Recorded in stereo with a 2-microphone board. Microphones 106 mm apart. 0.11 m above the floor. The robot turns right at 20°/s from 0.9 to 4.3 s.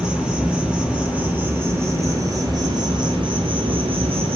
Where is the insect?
170° right, 2.5 m; by 4.3 s 100° right, 2.5 m.